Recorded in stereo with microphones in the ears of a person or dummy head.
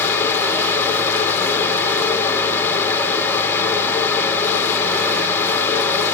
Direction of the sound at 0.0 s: 5° left (ahead or behind).